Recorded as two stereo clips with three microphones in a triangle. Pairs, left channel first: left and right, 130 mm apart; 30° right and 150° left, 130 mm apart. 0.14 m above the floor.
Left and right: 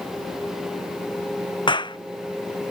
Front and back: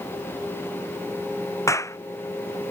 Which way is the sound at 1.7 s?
35° left.